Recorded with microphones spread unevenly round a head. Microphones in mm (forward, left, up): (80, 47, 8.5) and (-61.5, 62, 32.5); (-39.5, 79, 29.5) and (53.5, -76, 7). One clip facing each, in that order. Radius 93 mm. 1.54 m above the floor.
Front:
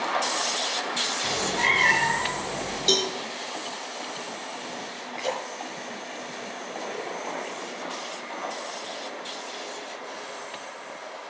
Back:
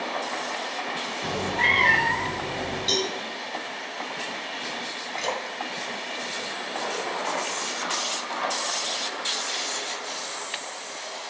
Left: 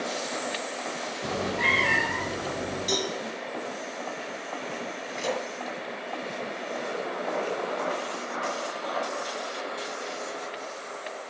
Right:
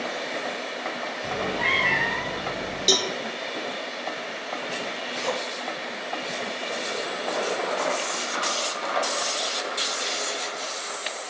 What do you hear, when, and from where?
1.2 s a cat meowing: 125° left, 4.5 m; by 2.9 s 145° left, 4.5 m
2.9 s a cowbell: 40° right, 1.2 m
5.1 s a splash: straight behind, 2.5 m